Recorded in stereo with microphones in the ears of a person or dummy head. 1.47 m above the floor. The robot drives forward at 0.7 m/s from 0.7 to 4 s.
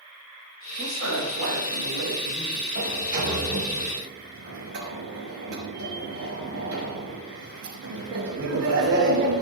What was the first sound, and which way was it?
A woman speaking, 80° right.